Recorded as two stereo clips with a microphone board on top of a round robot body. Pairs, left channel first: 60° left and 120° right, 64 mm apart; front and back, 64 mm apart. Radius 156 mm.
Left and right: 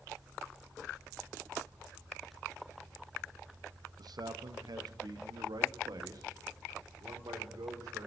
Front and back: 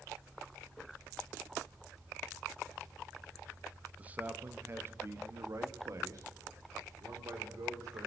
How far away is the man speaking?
About 0.9 m.